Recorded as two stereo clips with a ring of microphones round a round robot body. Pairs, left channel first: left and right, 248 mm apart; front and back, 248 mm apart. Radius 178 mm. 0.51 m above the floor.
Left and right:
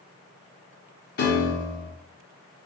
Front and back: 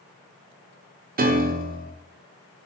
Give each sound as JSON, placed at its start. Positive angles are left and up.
{"t": 1.2, "sound": "a piano", "azimuth_deg": 130, "distance_m": 0.5}